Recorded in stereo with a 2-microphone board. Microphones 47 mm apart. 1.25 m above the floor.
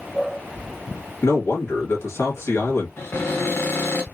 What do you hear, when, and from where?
1.2 s a man speaking: 80° left, 1.9 m
3.0 s a cupboard door: 60° left (ahead or behind), 1.5 m